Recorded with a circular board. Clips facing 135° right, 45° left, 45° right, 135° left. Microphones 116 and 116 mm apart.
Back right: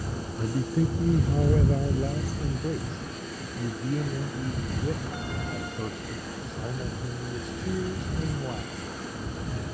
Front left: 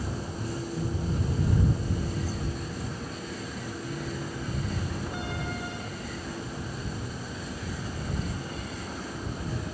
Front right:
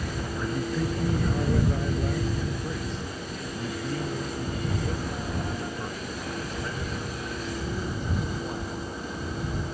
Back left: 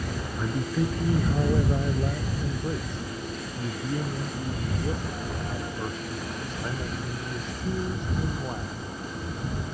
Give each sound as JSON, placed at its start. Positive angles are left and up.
{"t": 0.4, "sound": "a man speaking", "azimuth_deg": -145}